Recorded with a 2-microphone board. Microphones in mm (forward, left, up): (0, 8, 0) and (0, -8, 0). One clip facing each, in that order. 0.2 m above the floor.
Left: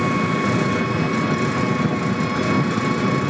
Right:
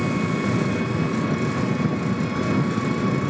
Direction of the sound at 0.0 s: 20° left (ahead or behind).